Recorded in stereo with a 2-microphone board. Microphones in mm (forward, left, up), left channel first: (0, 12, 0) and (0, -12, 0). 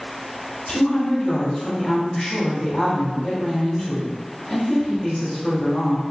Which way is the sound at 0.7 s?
30° left (ahead or behind).